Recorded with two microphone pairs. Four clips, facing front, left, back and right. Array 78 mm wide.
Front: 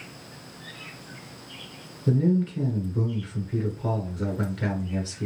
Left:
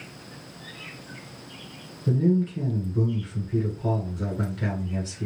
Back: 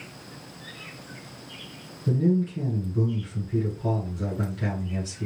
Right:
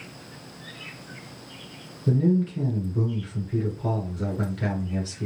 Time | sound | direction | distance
2.1 | a man speaking | 5° right | 1.4 m